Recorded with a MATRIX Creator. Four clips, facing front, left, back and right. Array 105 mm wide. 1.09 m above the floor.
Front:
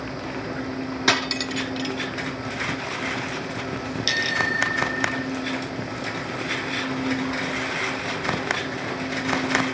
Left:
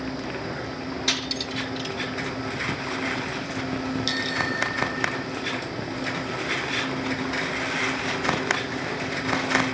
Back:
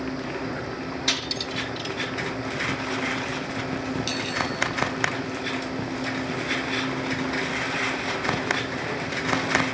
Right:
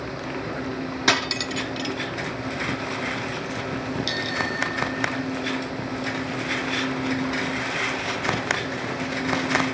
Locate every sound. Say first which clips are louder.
1.1 s cutlery clinking: right 6 dB, front 6 dB; 45° right
4.1 s a bicycle bell: even, front 2 dB; 5° left